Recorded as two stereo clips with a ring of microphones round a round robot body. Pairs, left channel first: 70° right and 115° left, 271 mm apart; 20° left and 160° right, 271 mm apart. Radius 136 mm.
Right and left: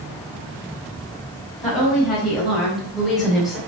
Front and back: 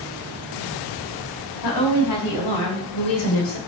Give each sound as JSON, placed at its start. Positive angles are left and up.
{"t": 1.6, "sound": "a woman speaking", "azimuth_deg": 25, "distance_m": 5.0}